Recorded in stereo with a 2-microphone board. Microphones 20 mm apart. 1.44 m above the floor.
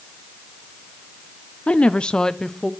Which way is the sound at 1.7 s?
80° left.